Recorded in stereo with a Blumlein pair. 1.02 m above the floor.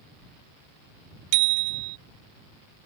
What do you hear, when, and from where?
1.3 s a bicycle bell: 45° right